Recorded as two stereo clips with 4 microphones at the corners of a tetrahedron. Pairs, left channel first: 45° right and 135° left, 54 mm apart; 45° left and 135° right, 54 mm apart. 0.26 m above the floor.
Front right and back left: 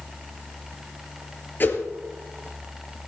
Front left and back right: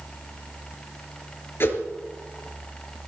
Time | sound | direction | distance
1.6 | a whoosh | 5° left | 3 m